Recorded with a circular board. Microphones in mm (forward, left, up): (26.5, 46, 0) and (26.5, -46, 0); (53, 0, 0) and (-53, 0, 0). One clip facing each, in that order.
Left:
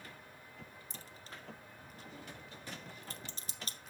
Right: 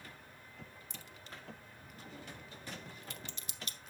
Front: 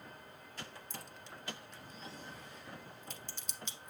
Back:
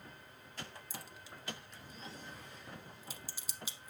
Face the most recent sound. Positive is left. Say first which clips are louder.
# even, front 1 dB
turn(degrees=100)